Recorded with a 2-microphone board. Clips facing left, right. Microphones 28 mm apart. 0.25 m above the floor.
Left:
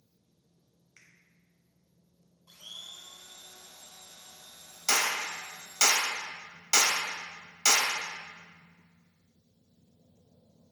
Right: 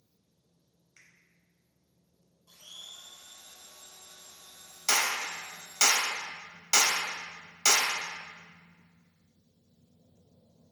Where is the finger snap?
10° left (ahead or behind), 0.8 m.